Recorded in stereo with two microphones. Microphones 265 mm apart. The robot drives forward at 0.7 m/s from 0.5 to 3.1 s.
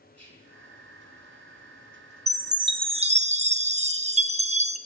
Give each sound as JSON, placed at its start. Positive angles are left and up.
{"t": 0.1, "sound": "whispering", "side_deg": -70, "distance_m": 4.0}
{"t": 2.3, "sound": "a chime", "side_deg": -15, "distance_m": 0.9}